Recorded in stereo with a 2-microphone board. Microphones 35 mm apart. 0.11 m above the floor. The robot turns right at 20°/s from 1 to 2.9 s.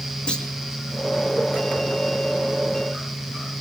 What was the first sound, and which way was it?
A clunk, 25° left (ahead or behind).